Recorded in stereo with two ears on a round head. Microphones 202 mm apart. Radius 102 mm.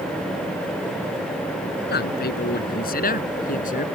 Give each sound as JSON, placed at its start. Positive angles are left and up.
{"t": 1.9, "sound": "a man speaking", "side_deg": 45}